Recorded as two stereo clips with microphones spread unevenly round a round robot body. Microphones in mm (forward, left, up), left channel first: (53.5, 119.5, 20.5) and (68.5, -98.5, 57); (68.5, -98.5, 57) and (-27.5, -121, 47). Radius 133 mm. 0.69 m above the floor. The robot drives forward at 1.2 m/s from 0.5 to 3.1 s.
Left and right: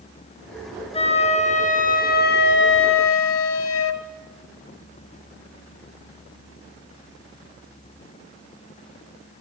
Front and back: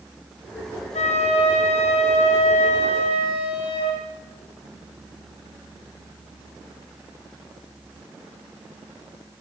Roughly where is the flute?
Ahead left.